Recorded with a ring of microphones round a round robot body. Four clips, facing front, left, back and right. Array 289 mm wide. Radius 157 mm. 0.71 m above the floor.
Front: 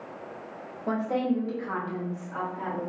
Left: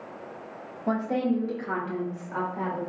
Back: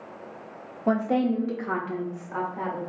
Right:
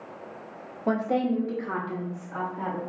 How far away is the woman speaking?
About 1.0 m.